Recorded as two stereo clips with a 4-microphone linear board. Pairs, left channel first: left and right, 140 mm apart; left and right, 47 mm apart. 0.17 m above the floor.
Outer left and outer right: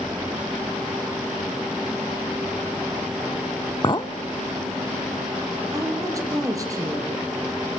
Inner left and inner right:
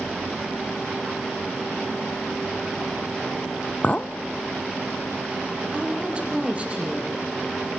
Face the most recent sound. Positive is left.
turn(degrees=-25)  # may be behind; listen again after turning